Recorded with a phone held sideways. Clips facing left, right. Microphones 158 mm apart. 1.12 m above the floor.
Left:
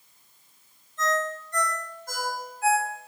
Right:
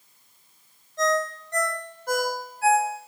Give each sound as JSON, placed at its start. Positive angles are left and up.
{"t": 1.0, "sound": "a ringtone", "side_deg": -70, "distance_m": 2.0}